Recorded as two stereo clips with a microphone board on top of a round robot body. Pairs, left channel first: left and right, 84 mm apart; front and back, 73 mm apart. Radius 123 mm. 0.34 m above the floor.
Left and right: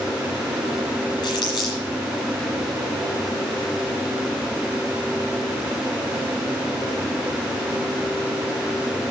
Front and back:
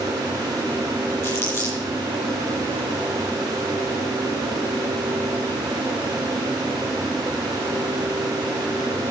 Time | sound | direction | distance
1.2 | crumpling | 55° left | 8 m